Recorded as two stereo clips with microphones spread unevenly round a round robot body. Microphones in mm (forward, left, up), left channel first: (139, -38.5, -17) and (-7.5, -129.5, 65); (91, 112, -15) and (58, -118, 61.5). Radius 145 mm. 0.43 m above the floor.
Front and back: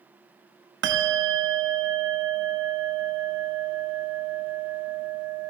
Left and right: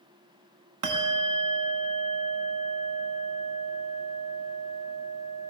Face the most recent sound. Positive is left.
turn(degrees=-130)